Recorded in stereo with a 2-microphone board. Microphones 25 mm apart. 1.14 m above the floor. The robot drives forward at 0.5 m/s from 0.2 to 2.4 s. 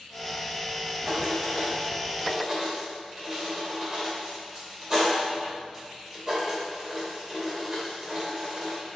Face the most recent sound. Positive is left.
turn(degrees=0)  # may be behind; listen again after turning